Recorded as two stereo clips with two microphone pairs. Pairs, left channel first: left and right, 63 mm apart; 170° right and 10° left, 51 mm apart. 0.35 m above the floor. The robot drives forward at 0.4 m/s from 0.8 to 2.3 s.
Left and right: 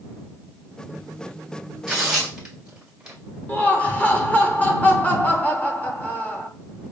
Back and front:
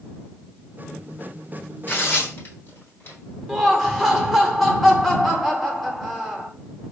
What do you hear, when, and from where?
1.9 s tearing paper: 170° right, 1.4 m
3.5 s laughter: 105° left, 0.9 m